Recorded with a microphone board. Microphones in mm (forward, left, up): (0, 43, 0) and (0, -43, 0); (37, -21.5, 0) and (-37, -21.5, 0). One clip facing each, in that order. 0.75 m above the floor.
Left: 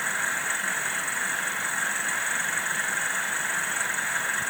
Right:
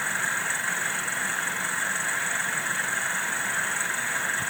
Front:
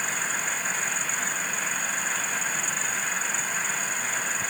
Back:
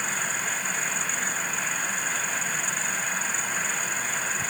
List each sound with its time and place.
Only background noise.